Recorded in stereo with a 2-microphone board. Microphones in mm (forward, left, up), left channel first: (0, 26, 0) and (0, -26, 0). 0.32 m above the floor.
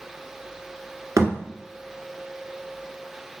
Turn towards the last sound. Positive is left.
turn(degrees=-80)